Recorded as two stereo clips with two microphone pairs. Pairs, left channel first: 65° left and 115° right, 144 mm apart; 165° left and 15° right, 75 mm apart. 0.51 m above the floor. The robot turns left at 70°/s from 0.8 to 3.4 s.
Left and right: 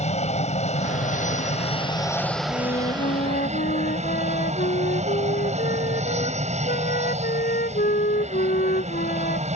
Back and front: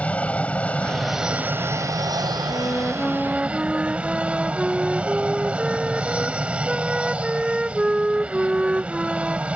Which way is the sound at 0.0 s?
95° left.